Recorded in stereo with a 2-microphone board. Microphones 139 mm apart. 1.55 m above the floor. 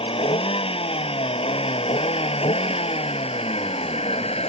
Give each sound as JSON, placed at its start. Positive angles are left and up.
{"t": 0.0, "sound": "a vehicle", "side_deg": 40}